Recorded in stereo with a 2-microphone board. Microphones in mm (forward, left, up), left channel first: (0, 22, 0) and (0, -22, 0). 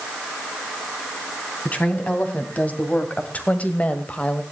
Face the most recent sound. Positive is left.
turn(degrees=30)  # may be behind; listen again after turning